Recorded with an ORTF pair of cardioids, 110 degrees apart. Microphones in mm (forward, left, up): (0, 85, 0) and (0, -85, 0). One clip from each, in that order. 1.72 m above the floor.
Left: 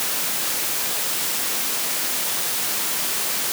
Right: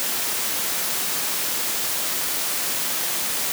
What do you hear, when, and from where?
Only background noise.